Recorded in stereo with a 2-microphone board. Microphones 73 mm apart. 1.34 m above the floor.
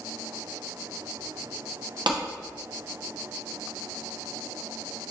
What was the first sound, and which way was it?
A clap, 80° right.